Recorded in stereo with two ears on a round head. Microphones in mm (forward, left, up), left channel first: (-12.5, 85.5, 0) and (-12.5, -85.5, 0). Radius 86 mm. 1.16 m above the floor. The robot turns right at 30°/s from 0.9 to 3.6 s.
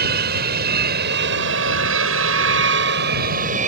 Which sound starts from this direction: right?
An aircraft, at 0.0 s.